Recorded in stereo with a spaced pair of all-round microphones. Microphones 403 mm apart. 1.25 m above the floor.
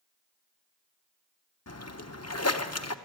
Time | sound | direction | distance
1.7 | a splash | 40° left (ahead or behind) | 0.9 m